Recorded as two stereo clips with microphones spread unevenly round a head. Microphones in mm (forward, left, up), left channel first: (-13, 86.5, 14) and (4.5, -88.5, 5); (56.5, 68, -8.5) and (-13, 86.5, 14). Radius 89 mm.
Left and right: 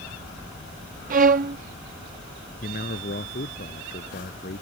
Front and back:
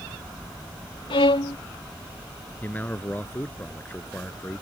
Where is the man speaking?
50° left.